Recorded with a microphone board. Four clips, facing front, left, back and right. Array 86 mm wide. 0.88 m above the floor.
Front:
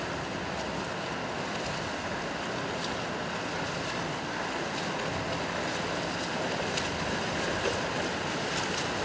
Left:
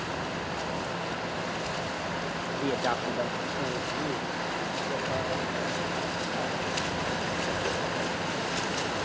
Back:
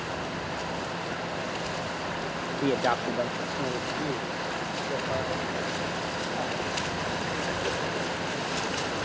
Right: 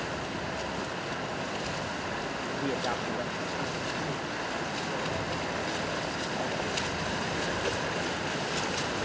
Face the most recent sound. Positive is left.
turn(degrees=150)